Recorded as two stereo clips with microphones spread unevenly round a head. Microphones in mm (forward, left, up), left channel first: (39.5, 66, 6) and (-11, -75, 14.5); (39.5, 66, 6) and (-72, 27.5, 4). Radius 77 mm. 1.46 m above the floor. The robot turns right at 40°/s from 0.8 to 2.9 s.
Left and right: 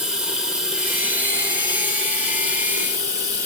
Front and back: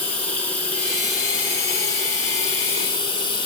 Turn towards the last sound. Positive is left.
turn(degrees=60)